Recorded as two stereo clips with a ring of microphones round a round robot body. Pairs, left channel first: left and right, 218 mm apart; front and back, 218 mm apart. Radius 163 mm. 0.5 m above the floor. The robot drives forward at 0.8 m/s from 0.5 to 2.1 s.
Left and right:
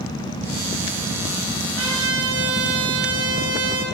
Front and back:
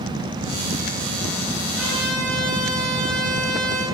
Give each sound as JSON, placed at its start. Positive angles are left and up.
{"t": 1.8, "sound": "a trumpet", "azimuth_deg": -85, "distance_m": 8.5}